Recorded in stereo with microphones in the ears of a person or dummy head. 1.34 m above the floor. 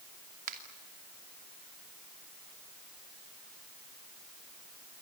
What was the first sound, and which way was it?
A finger snap, 45° right (ahead or behind).